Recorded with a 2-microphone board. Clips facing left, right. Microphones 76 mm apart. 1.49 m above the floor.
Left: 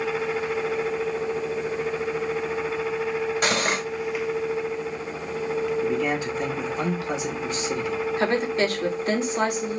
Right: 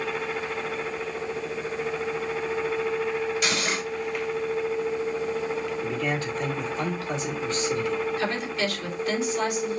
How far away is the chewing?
No chewing in this recording.